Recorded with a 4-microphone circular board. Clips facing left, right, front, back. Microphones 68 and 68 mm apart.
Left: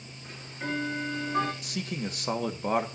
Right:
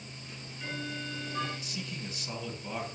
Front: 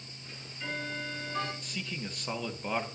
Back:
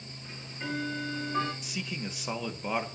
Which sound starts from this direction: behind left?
Ticking, at 0.2 s.